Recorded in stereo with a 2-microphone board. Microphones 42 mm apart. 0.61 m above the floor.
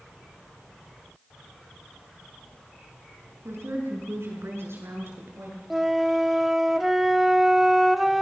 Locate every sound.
3.5 s a woman speaking: 80° right, 5.5 m; by 5.6 s 75° right (ahead or behind), 8.5 m
5.7 s a flute: 5° right (ahead or behind), 0.9 m